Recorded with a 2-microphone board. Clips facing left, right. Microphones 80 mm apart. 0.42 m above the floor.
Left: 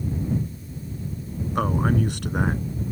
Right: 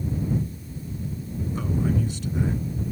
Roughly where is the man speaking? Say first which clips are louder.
Left 4 dB; left.